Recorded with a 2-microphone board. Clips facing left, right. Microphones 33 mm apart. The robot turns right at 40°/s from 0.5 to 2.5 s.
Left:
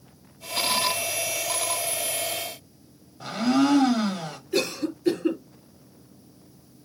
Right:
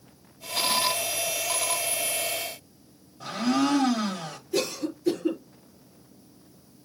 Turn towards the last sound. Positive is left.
turn(degrees=45)  # may be behind; listen again after turning